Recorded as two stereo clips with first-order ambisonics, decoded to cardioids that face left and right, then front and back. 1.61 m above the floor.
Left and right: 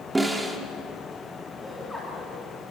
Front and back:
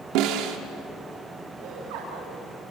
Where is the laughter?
Straight behind, 4.5 m.